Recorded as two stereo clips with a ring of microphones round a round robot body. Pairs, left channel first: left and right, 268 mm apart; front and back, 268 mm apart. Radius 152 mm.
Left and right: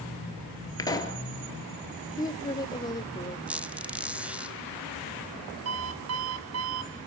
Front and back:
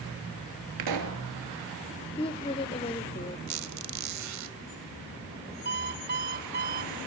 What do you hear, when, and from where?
0.8 s a pop: 165° left, 3 m
2.2 s a woman speaking: 35° left, 0.9 m
3.5 s a squeak: 175° right, 1.3 m
5.7 s an alarm clock: 125° right, 2.5 m